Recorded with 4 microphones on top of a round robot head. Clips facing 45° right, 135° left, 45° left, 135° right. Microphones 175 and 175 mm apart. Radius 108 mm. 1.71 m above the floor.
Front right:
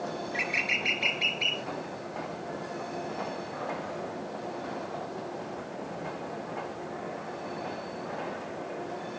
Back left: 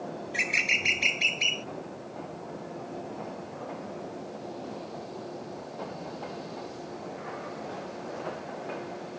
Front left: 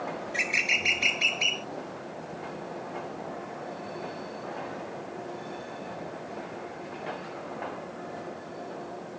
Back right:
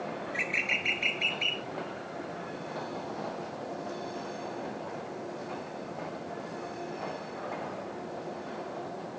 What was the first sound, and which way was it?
A bird, 95° left.